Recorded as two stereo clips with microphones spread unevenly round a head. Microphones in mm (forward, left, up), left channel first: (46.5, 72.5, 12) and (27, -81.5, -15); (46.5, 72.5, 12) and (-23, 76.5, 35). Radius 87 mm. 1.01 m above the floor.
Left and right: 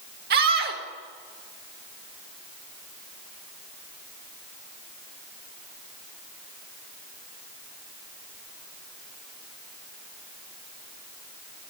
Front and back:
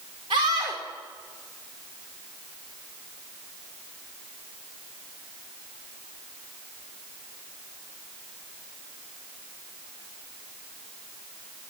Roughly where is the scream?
Behind right.